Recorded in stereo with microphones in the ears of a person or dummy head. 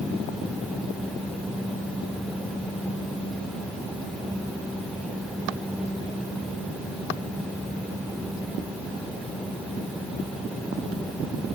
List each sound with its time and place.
Only background noise.